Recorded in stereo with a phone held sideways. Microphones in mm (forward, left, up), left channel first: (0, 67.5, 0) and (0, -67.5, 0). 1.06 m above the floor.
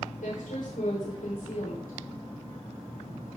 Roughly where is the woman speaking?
Left.